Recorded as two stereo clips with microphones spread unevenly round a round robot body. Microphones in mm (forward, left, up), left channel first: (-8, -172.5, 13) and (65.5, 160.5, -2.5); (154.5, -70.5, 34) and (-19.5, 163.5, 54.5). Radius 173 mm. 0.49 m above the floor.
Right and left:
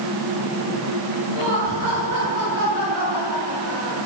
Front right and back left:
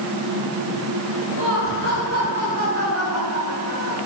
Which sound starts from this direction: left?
Laughter, at 1.3 s.